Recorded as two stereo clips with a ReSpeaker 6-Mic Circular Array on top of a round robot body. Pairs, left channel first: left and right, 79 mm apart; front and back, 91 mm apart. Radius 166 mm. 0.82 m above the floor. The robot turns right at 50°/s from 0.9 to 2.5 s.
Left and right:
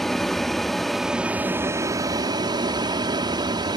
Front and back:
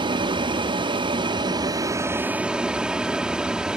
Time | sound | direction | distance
0.0 | an aircraft | 175° left | ?